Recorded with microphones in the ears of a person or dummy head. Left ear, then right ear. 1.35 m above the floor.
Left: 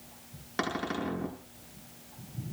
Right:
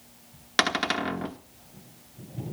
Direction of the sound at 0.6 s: 35° right (ahead or behind).